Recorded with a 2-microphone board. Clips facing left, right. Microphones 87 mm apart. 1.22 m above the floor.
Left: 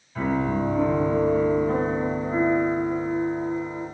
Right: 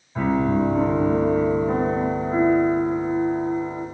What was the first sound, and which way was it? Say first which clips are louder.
A piano: right 4 dB; 20° right (ahead or behind).